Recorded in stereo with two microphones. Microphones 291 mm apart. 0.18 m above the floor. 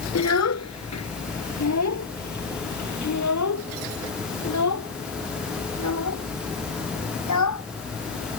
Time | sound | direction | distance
0.1 | a child speaking | 65° left (ahead or behind) | ?